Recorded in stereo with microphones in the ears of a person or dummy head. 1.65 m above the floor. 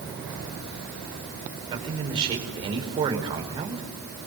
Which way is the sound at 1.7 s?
30° right (ahead or behind).